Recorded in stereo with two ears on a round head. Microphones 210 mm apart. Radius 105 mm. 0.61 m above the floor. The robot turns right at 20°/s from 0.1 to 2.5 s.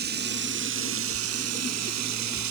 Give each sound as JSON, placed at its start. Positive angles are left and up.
{"t": 0.0, "sound": "running water", "azimuth_deg": -135}